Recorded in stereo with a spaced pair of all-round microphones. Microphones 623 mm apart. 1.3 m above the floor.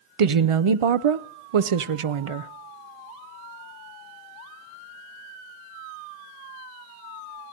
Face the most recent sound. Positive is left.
turn(degrees=-55)  # may be behind; listen again after turning